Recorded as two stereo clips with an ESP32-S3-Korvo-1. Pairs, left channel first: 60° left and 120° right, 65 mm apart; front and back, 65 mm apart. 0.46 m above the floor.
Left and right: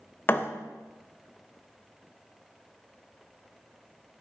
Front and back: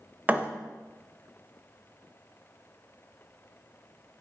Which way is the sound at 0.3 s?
115° left.